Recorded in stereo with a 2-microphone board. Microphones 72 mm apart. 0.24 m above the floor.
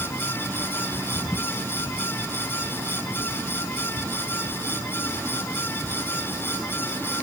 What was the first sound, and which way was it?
Only background noise.